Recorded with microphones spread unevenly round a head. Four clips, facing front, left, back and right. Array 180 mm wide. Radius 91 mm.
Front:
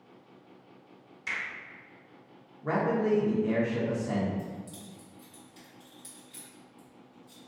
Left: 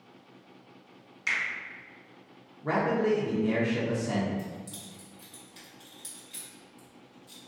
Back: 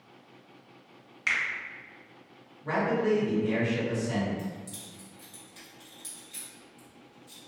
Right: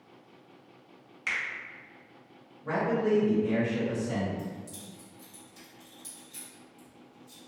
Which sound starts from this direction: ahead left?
A man speaking, at 2.6 s.